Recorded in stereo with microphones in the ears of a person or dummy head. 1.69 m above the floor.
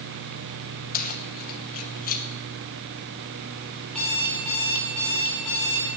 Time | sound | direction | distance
0.9 | keys jangling | 50° left (ahead or behind) | 1.1 m
3.9 | an alarm clock | 5° left (ahead or behind) | 4.5 m